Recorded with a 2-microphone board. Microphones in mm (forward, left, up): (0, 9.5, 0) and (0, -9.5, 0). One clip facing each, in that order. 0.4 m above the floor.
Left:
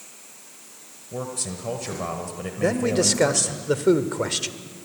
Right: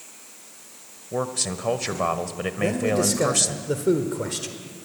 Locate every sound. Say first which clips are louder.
1.1 s a man speaking: right 4 dB; 35° right (ahead or behind), 1.3 m
2.6 s a man speaking: left 1 dB; 30° left (ahead or behind), 1.2 m